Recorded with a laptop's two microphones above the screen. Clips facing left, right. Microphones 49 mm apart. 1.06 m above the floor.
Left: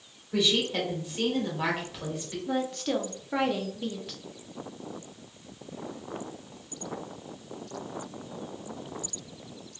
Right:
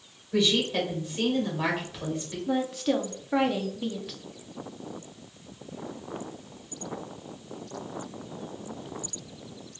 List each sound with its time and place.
0.3 s a woman speaking: 5° left (ahead or behind), 1.1 m
2.5 s a woman speaking: centre (ahead or behind), 0.5 m